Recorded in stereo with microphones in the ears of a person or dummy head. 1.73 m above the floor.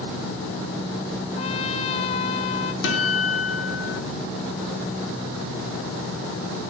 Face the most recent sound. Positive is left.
turn(degrees=65)  # may be behind; listen again after turning